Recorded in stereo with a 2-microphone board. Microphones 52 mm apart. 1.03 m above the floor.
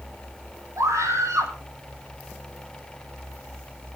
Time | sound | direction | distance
0.8 | a scream | 80° right | 5.5 m